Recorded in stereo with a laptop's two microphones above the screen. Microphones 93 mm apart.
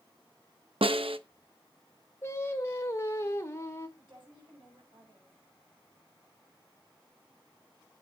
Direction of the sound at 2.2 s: 30° left (ahead or behind).